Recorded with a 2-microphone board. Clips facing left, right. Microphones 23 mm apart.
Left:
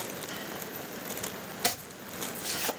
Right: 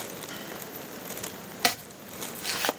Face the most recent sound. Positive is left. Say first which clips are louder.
# right 5 dB
turn(degrees=-55)  # may be behind; listen again after turning